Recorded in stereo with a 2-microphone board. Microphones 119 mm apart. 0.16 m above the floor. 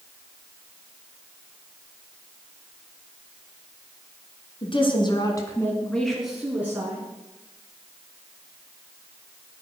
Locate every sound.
4.6 s a woman speaking: 50° left (ahead or behind), 2.5 m; by 7.0 s 20° right (ahead or behind), 3 m